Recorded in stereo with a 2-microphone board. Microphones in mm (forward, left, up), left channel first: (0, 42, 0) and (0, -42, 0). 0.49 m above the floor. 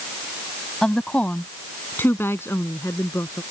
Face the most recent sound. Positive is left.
turn(degrees=35)  # may be behind; listen again after turning